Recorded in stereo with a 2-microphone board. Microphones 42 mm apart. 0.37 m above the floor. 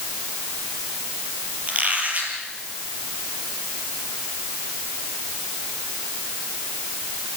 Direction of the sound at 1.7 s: 30° right (ahead or behind).